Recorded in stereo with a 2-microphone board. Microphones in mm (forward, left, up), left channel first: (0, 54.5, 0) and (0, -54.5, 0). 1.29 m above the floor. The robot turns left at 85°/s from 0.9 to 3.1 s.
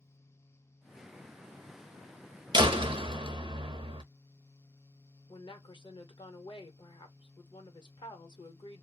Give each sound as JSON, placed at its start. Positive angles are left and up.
{"t": 2.5, "sound": "a door slam", "azimuth_deg": -60, "distance_m": 0.6}
{"t": 5.3, "sound": "a woman speaking", "side_deg": 45, "distance_m": 1.0}